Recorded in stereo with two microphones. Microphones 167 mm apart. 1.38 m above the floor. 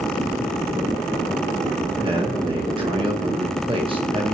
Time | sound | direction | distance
2.0 | a man speaking | 30° right (ahead or behind) | 1.5 m